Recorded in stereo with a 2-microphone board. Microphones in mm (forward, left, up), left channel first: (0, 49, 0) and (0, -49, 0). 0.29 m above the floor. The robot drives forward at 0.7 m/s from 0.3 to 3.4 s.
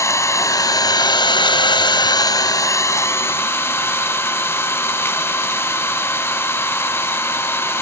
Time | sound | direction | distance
0.0 | an engine running | 30° left (ahead or behind) | 1.2 m